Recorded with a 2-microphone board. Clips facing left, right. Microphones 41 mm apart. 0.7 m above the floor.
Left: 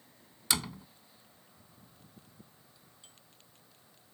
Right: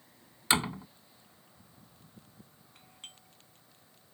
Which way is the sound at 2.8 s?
60° right (ahead or behind).